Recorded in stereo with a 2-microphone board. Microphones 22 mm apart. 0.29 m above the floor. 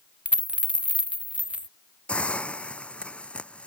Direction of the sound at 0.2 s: 65° right (ahead or behind).